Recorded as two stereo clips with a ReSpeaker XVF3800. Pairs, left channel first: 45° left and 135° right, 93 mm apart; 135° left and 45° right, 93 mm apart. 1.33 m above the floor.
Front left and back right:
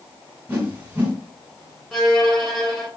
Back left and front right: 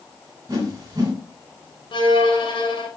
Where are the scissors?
I don't hear scissors.